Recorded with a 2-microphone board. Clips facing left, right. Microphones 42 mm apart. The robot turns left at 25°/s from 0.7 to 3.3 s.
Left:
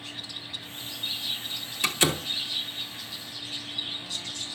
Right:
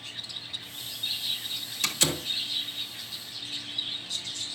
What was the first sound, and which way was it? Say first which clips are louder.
A door slam: left 4 dB; 15° left (ahead or behind).